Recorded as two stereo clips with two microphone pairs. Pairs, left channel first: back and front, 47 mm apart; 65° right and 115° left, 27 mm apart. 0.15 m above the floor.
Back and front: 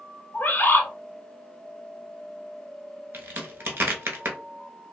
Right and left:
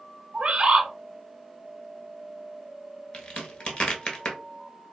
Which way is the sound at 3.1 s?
20° right.